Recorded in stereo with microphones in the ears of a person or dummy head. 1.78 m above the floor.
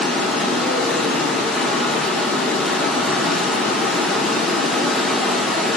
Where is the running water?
Centre (ahead or behind), 1.3 m.